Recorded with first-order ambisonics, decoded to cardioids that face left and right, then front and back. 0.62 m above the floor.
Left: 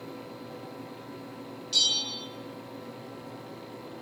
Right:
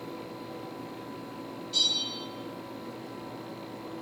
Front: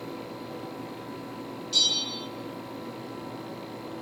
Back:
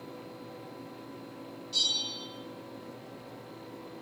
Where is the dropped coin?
No dropped coin in this recording.